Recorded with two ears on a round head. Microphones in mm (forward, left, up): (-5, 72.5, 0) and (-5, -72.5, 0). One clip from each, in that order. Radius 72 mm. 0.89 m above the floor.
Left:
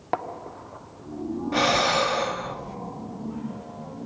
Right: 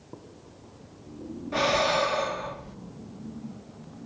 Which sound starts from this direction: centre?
Breathing, at 1.5 s.